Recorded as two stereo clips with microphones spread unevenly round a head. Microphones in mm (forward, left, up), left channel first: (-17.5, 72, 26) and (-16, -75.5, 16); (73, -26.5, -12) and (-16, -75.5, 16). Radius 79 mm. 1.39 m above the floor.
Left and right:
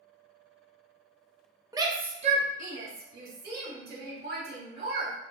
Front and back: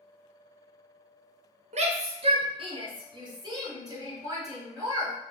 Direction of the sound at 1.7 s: 150° right.